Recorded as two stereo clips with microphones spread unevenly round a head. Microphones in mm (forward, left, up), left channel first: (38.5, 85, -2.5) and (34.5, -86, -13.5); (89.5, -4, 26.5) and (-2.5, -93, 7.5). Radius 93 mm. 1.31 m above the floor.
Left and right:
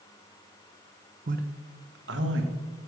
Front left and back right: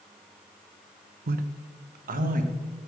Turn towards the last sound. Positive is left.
turn(degrees=-125)